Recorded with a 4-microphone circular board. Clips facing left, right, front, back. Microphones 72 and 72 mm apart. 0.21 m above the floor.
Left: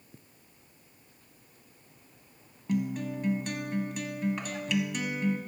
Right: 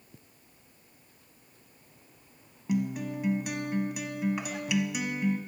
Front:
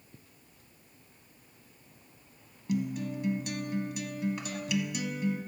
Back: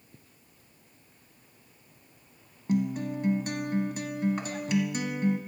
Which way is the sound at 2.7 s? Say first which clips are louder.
Even, back 4 dB; 165° right.